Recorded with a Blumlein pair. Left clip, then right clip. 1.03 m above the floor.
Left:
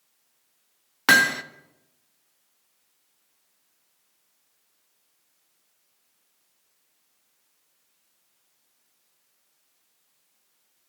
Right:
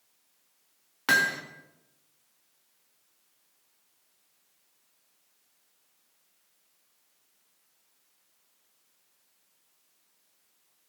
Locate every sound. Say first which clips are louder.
1.1 s hammering: left 6 dB; 25° left, 1.3 m